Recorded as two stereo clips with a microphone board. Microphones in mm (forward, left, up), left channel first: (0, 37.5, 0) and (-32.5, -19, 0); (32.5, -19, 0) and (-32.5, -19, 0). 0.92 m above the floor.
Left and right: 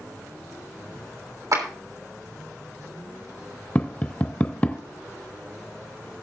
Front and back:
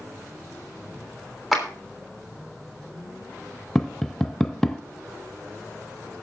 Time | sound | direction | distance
1.5 | a clap | 95° right | 3 m
3.8 | tapping | 70° left | 0.7 m